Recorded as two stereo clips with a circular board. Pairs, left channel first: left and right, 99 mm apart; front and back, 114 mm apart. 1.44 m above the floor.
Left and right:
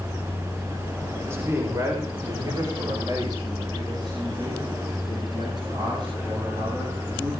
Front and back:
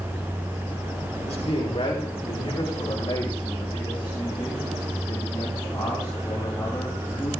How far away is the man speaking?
About 5.5 m.